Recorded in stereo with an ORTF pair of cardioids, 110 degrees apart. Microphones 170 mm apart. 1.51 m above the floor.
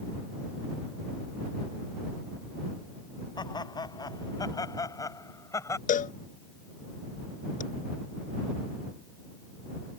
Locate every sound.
3.4 s laughter: 25° left; by 5.8 s 15° left
5.9 s a cowbell: 50° left